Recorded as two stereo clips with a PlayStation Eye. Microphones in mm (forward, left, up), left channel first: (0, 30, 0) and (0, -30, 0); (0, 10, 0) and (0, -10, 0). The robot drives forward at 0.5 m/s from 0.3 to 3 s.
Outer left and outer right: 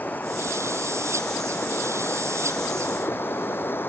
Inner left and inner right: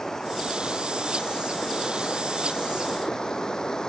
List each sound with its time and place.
0.0 s running water: 30° left (ahead or behind); by 3.9 s 35° left (ahead or behind)